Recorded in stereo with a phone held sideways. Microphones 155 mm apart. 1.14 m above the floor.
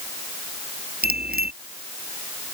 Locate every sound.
1.0 s a bicycle bell: 80° right